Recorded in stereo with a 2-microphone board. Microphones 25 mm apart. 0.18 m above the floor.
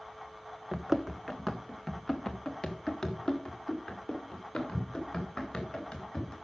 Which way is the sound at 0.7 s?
15° right (ahead or behind).